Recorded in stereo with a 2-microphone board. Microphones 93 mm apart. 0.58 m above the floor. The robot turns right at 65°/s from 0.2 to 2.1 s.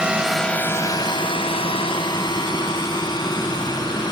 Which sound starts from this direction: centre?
A drone, at 0.0 s.